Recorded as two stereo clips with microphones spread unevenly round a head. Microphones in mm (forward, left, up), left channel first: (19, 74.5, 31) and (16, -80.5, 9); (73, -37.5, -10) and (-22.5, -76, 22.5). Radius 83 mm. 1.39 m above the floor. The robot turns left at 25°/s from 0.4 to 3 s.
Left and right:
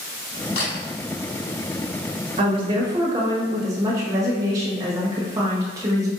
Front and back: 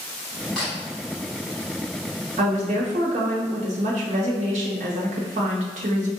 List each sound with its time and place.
0.6 s a camera shutter: 125° left, 1.5 m; by 0.8 s 120° left, 1.5 m
2.4 s a woman speaking: 145° right, 1.2 m; by 6.1 s 160° right, 1.2 m